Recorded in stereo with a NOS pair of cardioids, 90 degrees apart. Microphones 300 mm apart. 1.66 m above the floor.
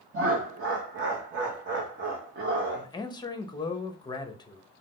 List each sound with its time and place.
0.1 s laughter: 35° right, 0.9 m
2.8 s a man speaking: 15° left, 0.8 m